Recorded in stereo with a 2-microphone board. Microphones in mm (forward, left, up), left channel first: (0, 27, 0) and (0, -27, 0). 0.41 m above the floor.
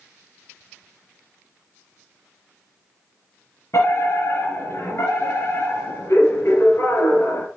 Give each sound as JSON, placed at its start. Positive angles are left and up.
{"t": 3.7, "sound": "a fire alarm", "side_deg": 65, "distance_m": 6.0}